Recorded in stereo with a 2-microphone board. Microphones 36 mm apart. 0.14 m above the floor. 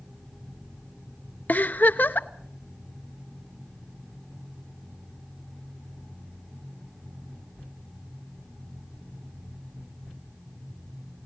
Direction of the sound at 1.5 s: 55° left (ahead or behind).